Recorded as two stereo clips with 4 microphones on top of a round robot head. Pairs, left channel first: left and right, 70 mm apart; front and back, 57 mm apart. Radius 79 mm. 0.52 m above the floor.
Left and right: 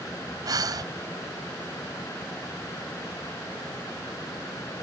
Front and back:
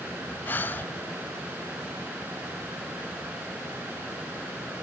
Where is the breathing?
60° right.